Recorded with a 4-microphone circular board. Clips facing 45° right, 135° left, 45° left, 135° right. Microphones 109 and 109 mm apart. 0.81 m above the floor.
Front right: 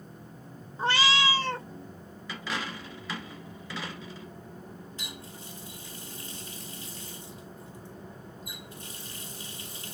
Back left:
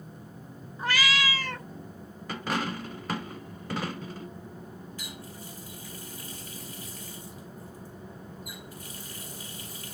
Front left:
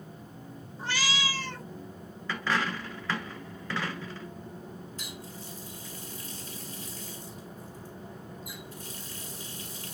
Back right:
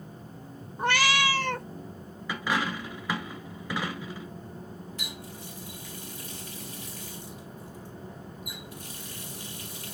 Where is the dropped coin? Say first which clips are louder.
Back left 5 dB, back right 1 dB; 150° left, 1.1 m.